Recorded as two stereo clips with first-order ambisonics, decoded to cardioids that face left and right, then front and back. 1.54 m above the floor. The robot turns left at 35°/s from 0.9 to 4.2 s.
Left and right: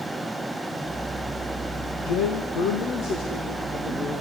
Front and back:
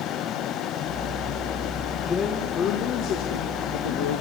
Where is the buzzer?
I don't hear a buzzer.